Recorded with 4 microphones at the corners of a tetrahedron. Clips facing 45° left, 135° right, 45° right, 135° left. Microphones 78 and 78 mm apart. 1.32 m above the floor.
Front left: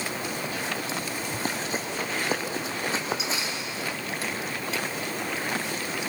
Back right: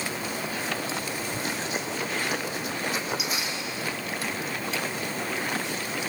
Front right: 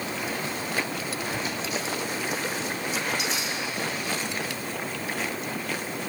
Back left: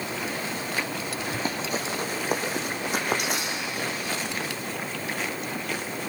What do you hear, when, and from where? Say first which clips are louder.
1.3 s running footsteps: front left 2 dB, back left 1 dB; 90° left, 4 m; by 3.9 s 110° left, 4.5 m